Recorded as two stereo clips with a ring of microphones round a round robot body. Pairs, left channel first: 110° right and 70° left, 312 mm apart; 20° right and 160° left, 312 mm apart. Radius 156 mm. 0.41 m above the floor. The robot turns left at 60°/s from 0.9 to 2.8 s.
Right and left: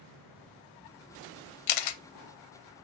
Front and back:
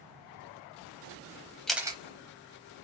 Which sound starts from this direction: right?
A camera shutter, at 1.7 s.